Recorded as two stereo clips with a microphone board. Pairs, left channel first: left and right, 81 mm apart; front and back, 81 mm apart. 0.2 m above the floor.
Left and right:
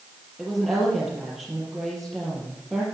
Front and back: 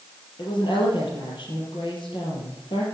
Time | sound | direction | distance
0.4 | a woman speaking | straight ahead | 5 m